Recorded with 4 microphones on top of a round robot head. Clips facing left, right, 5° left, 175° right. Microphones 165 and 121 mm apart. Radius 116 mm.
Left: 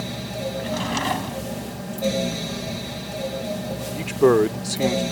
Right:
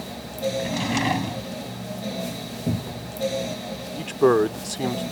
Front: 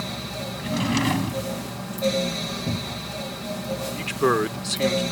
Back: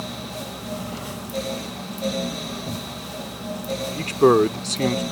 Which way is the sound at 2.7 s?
75° right.